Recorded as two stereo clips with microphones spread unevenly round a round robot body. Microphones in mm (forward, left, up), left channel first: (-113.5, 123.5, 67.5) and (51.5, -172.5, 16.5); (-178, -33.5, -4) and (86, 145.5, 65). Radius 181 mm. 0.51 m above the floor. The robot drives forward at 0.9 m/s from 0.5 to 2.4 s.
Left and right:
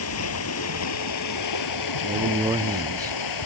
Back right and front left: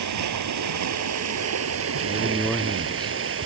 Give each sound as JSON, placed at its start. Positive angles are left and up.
{"t": 0.0, "sound": "running water", "azimuth_deg": 70}
{"t": 2.0, "sound": "a man speaking", "azimuth_deg": -45}